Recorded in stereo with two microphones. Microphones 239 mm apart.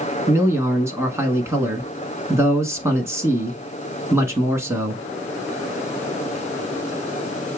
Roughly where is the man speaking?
Centre.